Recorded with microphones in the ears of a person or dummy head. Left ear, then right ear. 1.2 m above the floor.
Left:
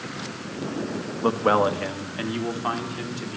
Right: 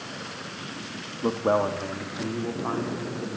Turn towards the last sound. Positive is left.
turn(degrees=80)